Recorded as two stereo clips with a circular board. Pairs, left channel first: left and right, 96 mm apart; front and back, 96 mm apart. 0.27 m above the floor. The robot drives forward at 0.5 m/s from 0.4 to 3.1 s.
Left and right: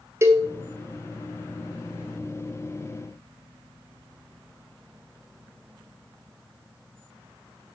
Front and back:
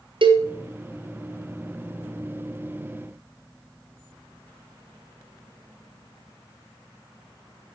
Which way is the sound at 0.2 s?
150° right.